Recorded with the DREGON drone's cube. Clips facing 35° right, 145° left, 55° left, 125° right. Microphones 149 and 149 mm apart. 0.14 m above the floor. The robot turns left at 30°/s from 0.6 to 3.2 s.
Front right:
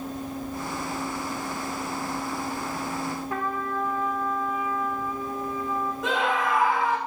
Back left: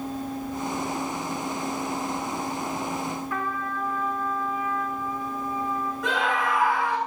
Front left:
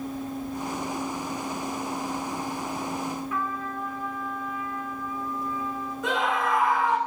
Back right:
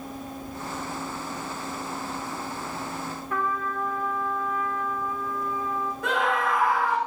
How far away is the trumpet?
About 4 m.